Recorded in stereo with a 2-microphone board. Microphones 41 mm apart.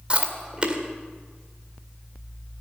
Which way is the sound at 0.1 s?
25° right (ahead or behind).